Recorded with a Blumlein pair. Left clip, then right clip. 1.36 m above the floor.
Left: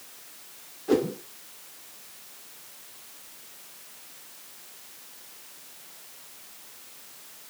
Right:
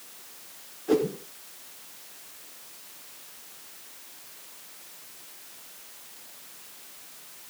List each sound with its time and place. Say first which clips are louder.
0.9 s a whoosh: even; 5° left, 1.9 m